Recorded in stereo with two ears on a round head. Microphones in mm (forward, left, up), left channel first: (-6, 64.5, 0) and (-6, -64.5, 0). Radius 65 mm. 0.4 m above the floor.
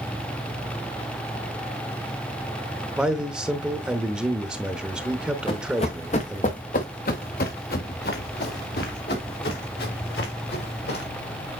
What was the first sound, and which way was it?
A man speaking, 5° right (ahead or behind).